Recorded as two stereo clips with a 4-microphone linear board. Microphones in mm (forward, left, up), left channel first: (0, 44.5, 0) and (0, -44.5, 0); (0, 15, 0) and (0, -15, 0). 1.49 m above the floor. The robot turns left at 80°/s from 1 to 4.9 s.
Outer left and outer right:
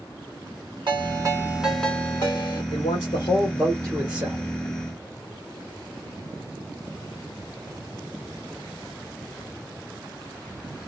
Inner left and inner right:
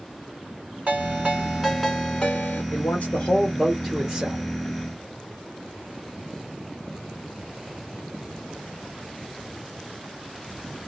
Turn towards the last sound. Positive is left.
turn(degrees=-75)